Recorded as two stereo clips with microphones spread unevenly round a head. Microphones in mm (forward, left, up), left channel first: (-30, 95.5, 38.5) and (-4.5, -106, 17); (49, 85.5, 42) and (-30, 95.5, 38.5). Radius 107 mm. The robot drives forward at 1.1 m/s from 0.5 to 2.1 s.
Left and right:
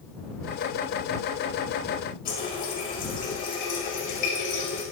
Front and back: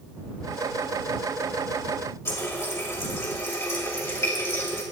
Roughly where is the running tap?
Ahead left.